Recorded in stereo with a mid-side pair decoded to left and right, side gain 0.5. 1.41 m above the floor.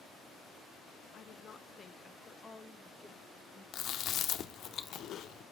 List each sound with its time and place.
1.1 s a woman speaking: 55° left, 0.7 m; by 3.6 s 10° left, 1.8 m
3.7 s chewing: 60° left, 0.6 m